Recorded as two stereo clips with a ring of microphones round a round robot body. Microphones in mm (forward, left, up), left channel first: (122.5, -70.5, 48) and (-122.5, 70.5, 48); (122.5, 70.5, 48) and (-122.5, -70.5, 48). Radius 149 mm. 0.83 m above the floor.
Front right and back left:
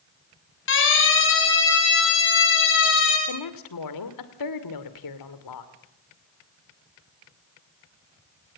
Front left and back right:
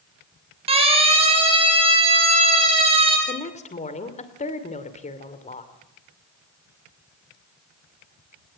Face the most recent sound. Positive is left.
turn(degrees=-35)